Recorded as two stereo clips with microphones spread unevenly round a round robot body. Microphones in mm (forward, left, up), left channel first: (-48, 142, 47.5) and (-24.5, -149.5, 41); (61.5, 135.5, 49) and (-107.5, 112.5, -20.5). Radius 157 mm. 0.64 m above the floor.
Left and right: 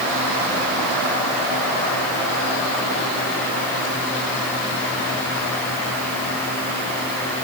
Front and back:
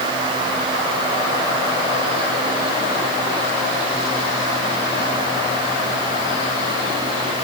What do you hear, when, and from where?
Only background noise.